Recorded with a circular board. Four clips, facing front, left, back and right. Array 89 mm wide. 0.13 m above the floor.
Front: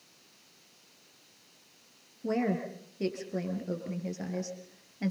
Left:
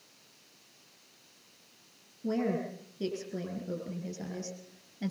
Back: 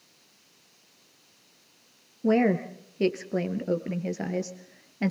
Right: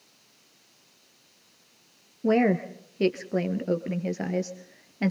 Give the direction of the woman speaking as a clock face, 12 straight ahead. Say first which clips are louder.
Right 9 dB, back 8 dB; 4 o'clock.